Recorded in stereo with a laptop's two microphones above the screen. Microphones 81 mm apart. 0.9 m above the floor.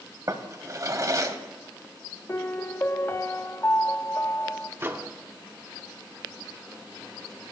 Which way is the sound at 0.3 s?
45° right (ahead or behind).